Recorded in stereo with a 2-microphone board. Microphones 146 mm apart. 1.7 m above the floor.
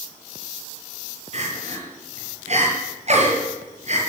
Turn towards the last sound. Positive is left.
turn(degrees=-55)  # may be behind; listen again after turning